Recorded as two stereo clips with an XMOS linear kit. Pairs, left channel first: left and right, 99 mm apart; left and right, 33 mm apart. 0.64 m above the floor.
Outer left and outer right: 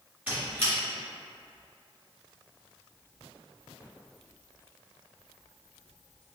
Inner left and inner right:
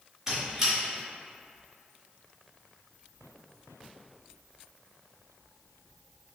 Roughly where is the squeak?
Centre.